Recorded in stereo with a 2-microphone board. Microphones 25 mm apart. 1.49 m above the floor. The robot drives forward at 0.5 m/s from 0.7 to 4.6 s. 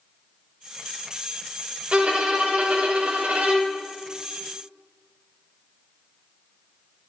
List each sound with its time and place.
1.9 s a violin: 50° right (ahead or behind), 1.5 m; by 3.8 s 80° right, 1.2 m